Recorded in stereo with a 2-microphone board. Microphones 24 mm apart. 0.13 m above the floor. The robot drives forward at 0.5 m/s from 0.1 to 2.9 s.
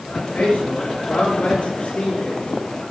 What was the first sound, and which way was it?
A man speaking, 80° left.